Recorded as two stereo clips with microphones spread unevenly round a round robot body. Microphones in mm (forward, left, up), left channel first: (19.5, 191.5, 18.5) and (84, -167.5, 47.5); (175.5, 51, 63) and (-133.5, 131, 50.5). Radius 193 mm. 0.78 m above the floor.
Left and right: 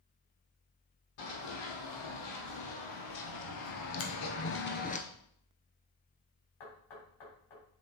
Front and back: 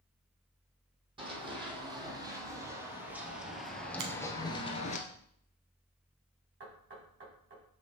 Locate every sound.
1.2 s running footsteps: 90° left, 2.5 m; by 5.0 s 35° left, 0.9 m
4.0 s a finger snap: 150° left, 1.2 m
6.6 s knocking: 110° left, 3.5 m